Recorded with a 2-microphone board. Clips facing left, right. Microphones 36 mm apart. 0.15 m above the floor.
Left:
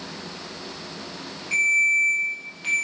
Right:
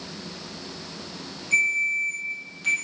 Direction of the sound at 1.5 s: 20° left (ahead or behind).